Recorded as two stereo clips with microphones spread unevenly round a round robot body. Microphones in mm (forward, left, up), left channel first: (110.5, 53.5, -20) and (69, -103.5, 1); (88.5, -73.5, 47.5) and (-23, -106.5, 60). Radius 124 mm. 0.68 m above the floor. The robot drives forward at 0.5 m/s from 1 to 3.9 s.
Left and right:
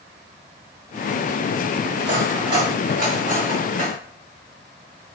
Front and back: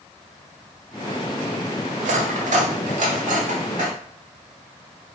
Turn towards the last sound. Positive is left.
turn(degrees=-165)